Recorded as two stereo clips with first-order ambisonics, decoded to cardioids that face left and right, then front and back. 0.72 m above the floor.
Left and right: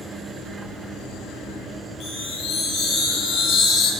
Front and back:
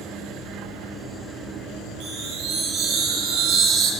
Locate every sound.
2.0 s a chime: 140° left, 9 m